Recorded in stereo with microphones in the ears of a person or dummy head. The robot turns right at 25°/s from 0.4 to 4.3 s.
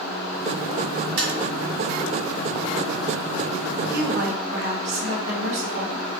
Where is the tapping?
60° right (ahead or behind), 3 m.